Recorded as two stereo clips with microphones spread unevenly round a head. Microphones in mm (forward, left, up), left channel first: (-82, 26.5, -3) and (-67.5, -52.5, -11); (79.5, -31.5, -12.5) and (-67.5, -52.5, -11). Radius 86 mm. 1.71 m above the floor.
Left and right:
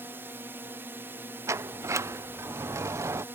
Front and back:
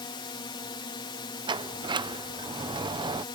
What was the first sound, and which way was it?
A drone, 30° right.